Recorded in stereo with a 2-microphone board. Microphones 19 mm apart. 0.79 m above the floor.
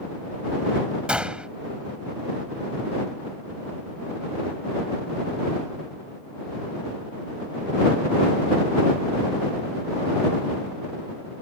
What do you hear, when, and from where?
1.1 s a gunshot: 80° right